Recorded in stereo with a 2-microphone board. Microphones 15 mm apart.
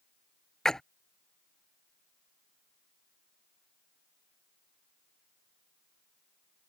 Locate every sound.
0.7 s a splash: 45° left (ahead or behind)